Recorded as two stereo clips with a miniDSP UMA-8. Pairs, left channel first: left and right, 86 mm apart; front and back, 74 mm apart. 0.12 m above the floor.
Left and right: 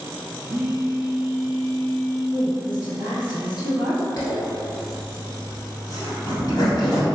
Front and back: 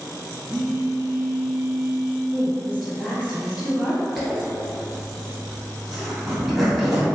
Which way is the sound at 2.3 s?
95° left.